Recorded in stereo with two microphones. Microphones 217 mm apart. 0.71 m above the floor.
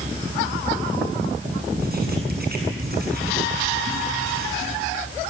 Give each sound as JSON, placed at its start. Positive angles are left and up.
{"t": 1.8, "sound": "writing", "side_deg": -45, "distance_m": 7.5}